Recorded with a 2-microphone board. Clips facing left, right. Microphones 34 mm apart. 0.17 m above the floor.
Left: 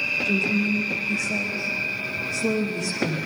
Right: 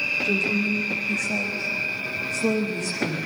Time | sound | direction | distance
0.2 | a woman speaking | 65° right (ahead or behind) | 9.5 m